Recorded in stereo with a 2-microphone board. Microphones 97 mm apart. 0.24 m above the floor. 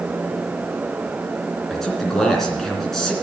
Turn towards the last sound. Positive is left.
turn(degrees=5)  # may be behind; listen again after turning